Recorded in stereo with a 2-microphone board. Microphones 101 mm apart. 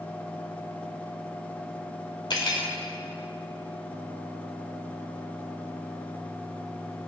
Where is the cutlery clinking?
45° left (ahead or behind), 1.6 m.